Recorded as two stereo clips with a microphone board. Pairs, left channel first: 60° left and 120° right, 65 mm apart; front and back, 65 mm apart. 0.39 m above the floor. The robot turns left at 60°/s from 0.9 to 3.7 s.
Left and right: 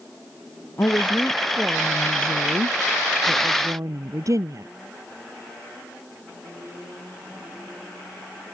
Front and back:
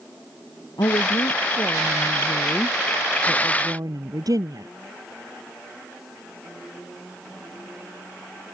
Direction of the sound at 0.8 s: 10° left.